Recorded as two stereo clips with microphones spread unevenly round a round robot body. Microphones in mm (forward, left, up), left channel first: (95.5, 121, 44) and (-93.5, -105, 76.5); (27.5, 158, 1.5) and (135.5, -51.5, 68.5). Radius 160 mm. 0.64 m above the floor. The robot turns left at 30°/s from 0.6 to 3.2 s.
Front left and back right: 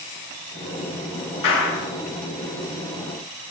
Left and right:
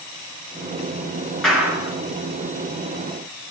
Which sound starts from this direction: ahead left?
A clap, at 1.4 s.